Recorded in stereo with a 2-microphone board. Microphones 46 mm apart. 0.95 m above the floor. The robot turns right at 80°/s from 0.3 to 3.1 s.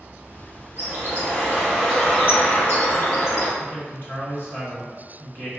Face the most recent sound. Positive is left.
turn(degrees=45)  # may be behind; listen again after turning